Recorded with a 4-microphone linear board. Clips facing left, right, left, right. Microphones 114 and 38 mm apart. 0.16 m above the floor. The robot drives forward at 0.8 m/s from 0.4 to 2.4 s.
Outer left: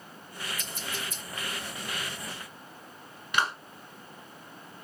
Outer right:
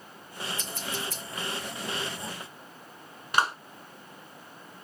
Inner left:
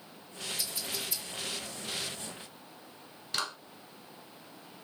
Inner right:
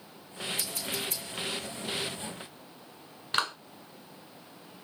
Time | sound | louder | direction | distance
0.6 | scissors | outer right 2 dB, inner right 3 dB | 85° right | 4 m
3.3 | a clap | outer right 2 dB, inner right 5 dB | 40° right (ahead or behind) | 1.4 m